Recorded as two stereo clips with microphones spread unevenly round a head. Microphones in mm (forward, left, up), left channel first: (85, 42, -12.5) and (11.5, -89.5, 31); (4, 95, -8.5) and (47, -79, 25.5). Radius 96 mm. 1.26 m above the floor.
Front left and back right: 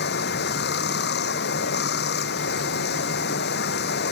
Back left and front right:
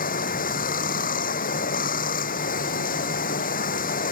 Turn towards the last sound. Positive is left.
turn(degrees=60)